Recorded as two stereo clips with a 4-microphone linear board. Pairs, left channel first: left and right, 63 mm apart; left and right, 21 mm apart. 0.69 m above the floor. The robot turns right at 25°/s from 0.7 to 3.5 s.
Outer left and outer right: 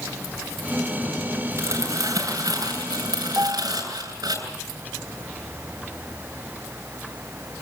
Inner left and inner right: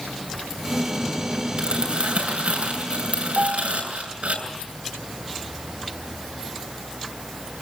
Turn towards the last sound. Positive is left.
turn(degrees=-45)  # may be behind; listen again after turning